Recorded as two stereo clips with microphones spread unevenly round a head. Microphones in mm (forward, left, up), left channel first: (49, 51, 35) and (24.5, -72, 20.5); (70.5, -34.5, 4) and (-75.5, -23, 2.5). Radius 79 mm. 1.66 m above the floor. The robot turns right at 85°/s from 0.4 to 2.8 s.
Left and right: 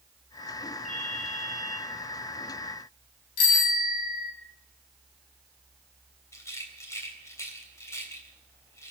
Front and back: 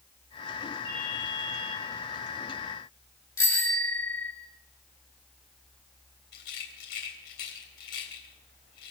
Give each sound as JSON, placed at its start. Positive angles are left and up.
{"t": 0.8, "sound": "a ringtone", "azimuth_deg": -5, "distance_m": 5.0}
{"t": 3.4, "sound": "a bicycle bell", "azimuth_deg": 70, "distance_m": 2.5}
{"t": 6.3, "sound": "a rattle", "azimuth_deg": 15, "distance_m": 3.0}